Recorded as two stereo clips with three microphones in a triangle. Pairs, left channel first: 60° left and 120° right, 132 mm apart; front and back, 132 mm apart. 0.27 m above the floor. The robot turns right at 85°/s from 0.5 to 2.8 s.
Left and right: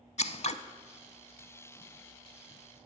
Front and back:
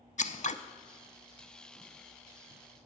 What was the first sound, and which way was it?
Scissors, 25° left.